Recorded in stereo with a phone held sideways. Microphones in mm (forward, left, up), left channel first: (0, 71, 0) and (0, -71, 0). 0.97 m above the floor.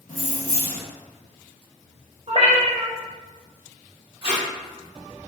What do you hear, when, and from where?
0.1 s keys jangling: 70° left (ahead or behind), 1.0 m
2.3 s a cat meowing: 50° right (ahead or behind), 0.6 m
4.2 s tape being pulled: 40° right (ahead or behind), 1.0 m